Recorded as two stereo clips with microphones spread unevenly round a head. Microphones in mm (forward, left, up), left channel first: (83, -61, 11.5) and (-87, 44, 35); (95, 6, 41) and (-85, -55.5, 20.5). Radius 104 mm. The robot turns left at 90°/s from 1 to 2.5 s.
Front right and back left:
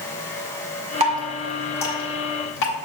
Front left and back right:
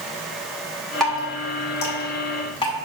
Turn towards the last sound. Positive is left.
turn(degrees=-35)